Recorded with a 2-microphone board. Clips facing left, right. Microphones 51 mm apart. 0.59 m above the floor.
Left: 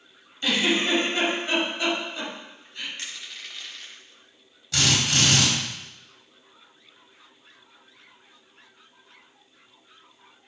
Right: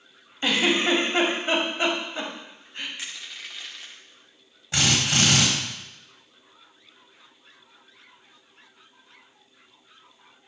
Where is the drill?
25° right (ahead or behind), 4 m.